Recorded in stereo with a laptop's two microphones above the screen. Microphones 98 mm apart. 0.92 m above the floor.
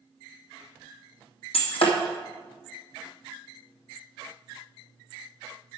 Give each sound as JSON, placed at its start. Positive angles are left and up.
{"t": 1.5, "sound": "breaking glass", "side_deg": 70, "distance_m": 2.5}